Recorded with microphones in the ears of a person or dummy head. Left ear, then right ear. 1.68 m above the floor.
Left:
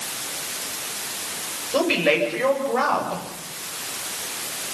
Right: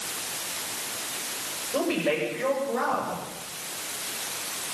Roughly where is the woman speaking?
Left.